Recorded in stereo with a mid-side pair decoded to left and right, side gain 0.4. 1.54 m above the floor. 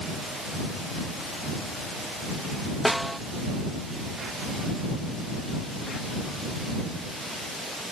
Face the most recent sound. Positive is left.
turn(degrees=0)